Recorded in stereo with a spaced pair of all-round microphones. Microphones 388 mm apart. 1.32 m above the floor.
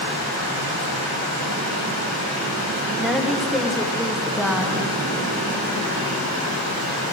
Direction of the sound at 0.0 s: 65° right (ahead or behind).